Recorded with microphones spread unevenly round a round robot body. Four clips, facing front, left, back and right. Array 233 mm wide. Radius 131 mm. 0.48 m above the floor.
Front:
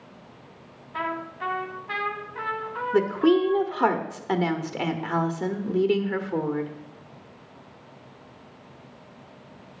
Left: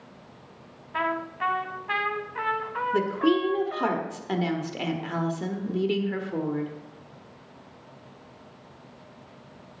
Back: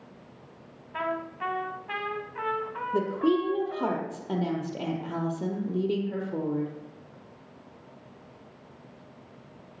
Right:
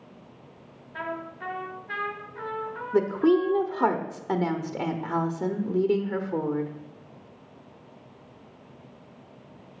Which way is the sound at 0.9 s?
75° left.